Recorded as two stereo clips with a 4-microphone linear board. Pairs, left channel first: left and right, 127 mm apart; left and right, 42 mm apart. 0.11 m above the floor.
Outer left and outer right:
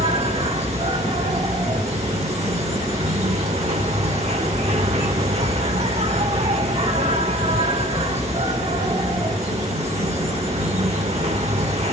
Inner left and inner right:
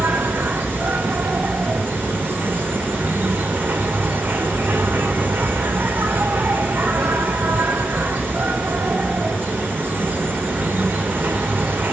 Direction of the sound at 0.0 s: 60° right (ahead or behind).